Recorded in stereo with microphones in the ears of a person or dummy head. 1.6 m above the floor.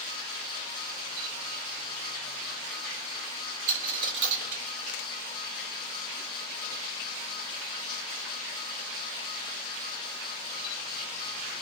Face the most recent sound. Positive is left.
turn(degrees=-40)  # may be behind; listen again after turning